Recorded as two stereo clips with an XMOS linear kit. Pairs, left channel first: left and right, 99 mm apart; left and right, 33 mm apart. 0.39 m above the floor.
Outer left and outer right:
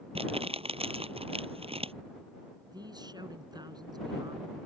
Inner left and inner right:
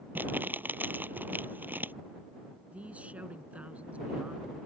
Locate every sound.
0.1 s crumpling: 75° right (ahead or behind)
2.7 s a man speaking: 45° right (ahead or behind)